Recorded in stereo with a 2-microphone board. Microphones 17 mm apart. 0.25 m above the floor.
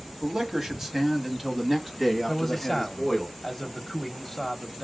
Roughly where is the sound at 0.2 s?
Right.